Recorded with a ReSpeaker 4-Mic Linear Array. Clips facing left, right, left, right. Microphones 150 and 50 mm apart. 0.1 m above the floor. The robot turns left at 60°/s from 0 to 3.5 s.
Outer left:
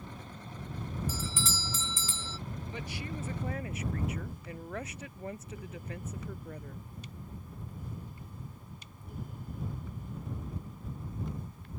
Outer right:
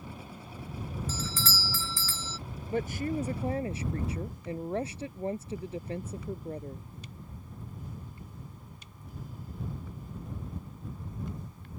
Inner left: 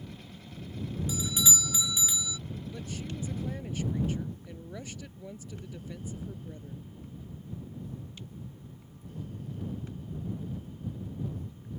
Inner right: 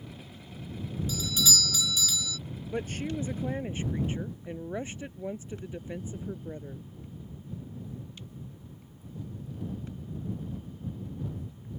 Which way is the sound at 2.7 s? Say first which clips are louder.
Outer right 13 dB, inner right 10 dB; 90° right.